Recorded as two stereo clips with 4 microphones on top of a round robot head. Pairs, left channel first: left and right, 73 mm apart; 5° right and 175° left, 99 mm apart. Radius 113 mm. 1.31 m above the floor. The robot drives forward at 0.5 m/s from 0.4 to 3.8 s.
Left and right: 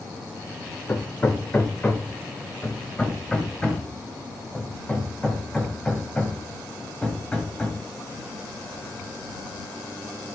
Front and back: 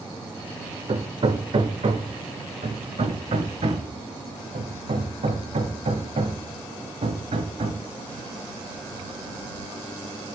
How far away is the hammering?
About 1.3 m.